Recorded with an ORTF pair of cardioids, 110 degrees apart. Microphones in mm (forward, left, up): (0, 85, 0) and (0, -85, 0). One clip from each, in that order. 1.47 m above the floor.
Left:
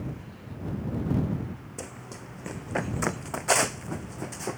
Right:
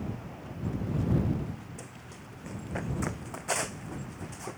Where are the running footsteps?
40° left.